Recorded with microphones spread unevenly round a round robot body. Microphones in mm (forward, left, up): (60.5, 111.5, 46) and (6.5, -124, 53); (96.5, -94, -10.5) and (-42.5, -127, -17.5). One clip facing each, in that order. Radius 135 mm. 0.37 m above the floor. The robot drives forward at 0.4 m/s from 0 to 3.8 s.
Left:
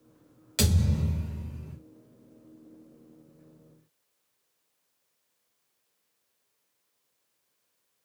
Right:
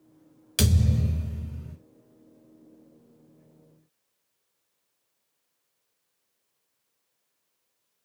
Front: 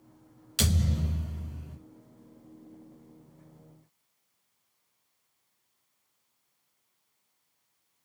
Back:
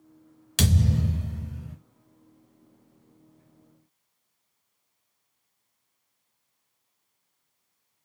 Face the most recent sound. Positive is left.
turn(degrees=180)